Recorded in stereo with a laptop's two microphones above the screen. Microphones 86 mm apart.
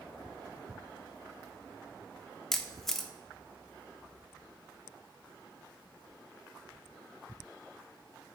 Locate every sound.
2.5 s a camera shutter: 5° left (ahead or behind), 0.7 m